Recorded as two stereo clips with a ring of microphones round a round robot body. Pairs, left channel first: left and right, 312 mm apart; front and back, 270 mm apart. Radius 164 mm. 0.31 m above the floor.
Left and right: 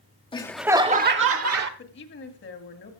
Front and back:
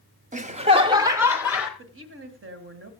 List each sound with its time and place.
0.3 s laughter: 150° left, 0.9 m; by 1.7 s 90° right, 1.3 m
1.8 s a woman speaking: 140° left, 2.0 m